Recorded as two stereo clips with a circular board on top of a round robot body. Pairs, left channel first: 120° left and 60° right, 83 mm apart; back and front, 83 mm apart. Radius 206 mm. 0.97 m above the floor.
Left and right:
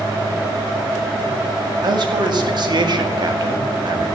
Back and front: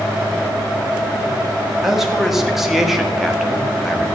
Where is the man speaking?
85° right, 2 m.